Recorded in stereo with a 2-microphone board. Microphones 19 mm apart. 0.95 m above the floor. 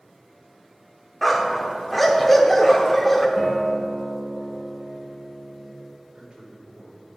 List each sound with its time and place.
1.2 s a dog barking: centre (ahead or behind), 0.9 m
3.4 s a guitar: 20° right (ahead or behind), 3 m
6.1 s a man speaking: 60° right (ahead or behind), 2.5 m